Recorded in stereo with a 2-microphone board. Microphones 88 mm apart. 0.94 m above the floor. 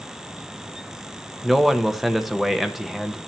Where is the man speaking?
Centre (ahead or behind), 0.7 m.